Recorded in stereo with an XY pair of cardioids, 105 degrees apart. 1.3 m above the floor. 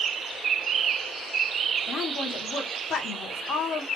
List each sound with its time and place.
1.9 s a woman speaking: 55° left, 1.4 m